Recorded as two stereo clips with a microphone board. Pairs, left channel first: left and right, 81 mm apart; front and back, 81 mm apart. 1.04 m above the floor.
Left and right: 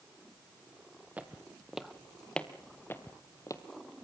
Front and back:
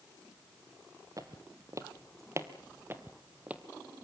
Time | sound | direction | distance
1.2 | footsteps | 160° right | 1.6 m